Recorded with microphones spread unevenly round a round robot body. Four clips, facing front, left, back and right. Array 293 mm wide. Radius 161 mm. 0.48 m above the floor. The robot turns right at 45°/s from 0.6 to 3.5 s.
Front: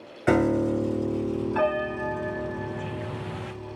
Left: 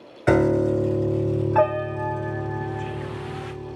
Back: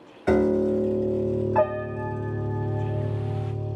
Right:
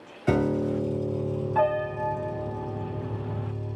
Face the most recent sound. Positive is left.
turn(degrees=-165)